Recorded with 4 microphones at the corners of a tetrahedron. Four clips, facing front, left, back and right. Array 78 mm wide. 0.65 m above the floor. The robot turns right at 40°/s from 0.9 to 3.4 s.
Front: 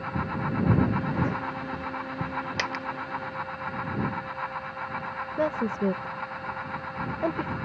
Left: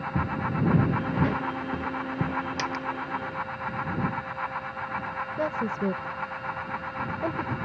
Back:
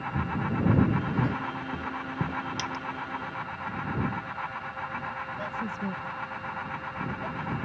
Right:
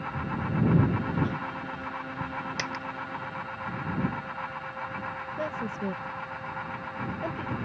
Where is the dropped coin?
Straight ahead; by 2.8 s 10° left.